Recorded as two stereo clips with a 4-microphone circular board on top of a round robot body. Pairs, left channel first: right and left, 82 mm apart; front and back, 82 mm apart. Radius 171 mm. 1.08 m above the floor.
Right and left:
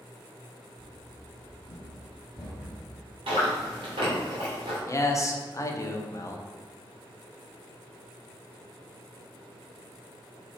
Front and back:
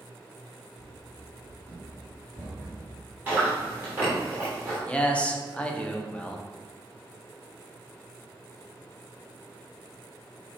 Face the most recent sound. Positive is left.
turn(degrees=-70)